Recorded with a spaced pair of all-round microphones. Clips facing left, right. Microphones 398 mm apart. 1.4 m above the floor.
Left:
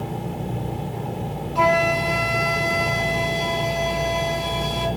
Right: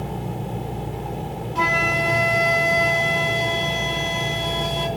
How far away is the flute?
About 3 m.